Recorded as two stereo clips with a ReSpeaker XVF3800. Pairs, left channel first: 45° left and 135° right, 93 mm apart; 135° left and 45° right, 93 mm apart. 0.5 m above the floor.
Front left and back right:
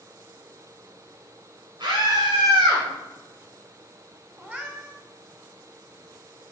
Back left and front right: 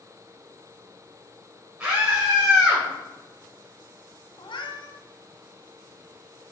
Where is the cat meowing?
155° left, 1.4 m.